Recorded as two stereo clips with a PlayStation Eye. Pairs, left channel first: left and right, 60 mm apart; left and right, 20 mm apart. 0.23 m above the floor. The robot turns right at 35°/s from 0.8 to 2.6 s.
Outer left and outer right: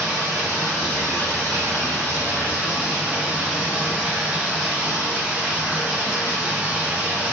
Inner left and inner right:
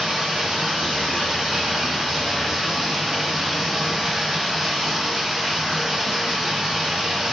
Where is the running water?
90° right, 1.6 m; by 7.3 s 30° right, 1.6 m.